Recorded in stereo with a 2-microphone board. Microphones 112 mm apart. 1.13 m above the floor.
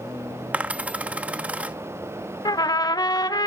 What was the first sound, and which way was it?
A dropped coin, 10° right (ahead or behind).